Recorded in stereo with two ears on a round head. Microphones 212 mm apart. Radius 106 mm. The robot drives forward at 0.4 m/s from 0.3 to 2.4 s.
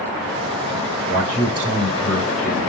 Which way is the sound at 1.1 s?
50° right (ahead or behind).